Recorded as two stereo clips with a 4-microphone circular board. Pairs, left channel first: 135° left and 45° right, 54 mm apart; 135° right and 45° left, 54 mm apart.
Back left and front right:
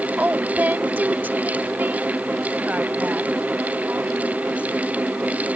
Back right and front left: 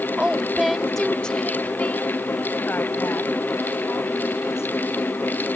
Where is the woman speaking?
15° right; by 5.5 s 110° right.